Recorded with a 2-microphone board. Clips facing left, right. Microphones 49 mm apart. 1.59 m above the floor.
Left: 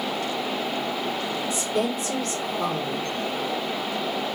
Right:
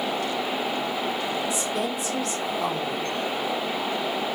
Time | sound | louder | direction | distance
1.5 | a woman speaking | left 2 dB | 45° left (ahead or behind) | 1.8 m